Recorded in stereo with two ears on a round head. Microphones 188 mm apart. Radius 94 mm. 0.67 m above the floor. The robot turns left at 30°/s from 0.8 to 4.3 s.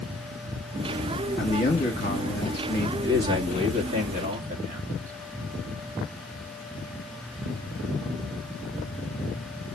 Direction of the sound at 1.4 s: 65° left.